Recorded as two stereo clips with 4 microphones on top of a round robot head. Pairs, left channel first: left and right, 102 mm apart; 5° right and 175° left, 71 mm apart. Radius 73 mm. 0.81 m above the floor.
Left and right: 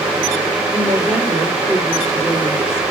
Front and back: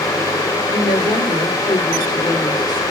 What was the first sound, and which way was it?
A woman speaking, 20° right.